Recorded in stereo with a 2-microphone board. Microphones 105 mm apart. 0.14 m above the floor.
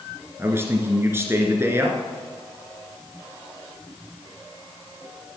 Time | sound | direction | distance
0.4 | a man speaking | 25° right (ahead or behind) | 2.5 m